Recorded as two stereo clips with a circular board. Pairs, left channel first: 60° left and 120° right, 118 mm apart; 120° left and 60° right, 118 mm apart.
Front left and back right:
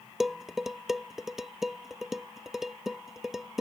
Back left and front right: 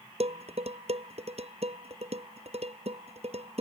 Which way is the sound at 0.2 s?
35° right.